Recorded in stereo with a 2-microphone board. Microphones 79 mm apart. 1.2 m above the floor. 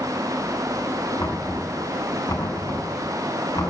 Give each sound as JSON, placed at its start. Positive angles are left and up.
{"t": 1.2, "sound": "knocking", "side_deg": 55, "distance_m": 6.0}